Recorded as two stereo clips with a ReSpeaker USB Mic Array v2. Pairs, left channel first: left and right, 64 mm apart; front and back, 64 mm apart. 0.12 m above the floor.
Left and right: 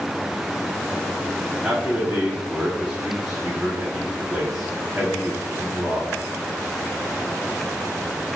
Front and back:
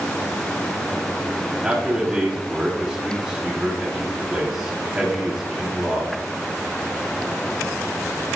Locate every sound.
1.6 s a man speaking: 145° right, 1.2 m